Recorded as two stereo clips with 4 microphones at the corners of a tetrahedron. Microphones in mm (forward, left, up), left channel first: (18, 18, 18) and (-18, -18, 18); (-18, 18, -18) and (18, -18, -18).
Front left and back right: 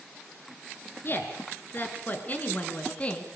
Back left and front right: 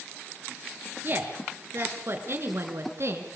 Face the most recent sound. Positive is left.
turn(degrees=-20)